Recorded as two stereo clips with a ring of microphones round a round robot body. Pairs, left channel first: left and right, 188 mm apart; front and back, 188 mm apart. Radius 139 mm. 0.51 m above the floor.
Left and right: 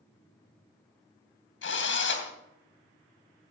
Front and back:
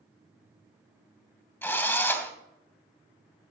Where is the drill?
80° left, 2.5 m.